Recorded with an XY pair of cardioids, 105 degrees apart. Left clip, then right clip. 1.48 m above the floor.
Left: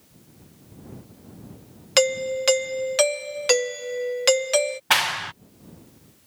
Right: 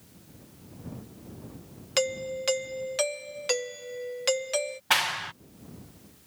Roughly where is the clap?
Ahead left.